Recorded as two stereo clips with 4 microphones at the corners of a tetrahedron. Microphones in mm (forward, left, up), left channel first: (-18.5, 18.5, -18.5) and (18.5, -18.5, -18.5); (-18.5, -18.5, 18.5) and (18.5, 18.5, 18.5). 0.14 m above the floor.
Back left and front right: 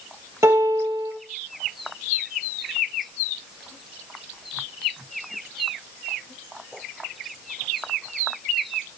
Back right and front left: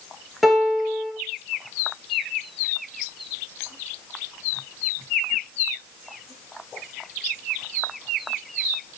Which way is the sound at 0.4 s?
45° right.